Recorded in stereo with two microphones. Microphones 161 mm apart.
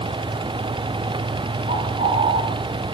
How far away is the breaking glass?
No breaking glass in this recording.